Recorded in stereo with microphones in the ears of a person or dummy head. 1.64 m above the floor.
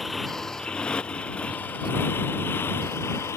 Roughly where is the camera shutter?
No camera shutter in this recording.